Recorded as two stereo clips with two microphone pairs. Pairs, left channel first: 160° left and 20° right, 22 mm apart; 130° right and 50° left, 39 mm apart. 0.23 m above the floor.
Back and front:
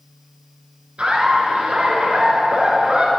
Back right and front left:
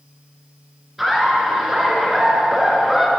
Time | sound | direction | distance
1.0 | laughter | 35° right | 2.5 m